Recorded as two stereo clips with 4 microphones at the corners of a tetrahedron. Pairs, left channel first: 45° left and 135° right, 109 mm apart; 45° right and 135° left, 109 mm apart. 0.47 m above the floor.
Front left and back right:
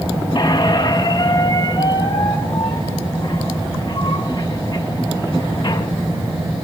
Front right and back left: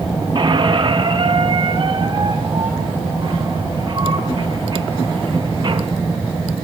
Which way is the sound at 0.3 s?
90° left.